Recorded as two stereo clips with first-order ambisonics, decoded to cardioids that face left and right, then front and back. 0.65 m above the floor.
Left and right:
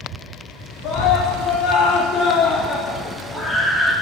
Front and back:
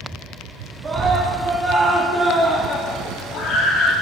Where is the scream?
115° left, 1.9 m; by 3.9 s 10° right, 1.8 m.